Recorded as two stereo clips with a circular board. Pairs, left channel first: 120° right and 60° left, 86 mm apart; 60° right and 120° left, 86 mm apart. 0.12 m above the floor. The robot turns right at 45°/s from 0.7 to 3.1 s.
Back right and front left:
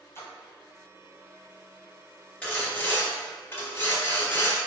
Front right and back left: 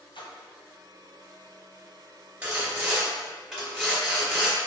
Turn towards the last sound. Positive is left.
turn(degrees=-155)